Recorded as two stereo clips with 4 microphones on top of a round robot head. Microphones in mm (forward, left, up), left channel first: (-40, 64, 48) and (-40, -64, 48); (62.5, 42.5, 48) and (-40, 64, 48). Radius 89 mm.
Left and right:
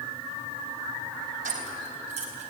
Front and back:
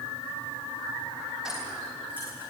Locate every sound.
1.4 s keys jangling: 105° right, 3.5 m; by 2.5 s 115° right, 4 m